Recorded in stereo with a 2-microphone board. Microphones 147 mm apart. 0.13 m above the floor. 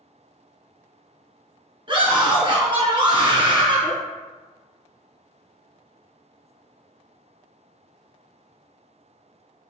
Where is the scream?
35° right (ahead or behind), 1.3 m.